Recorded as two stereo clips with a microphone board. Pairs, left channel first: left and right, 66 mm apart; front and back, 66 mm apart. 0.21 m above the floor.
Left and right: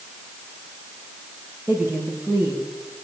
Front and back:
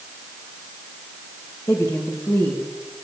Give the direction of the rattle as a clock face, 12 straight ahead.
I don't hear a rattle.